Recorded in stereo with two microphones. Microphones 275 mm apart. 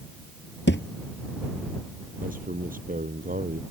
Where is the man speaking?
30° right (ahead or behind).